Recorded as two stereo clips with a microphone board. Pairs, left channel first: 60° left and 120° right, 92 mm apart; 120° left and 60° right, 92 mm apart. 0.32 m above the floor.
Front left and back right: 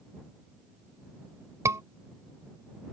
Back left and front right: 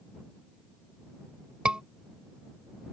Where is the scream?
130° right.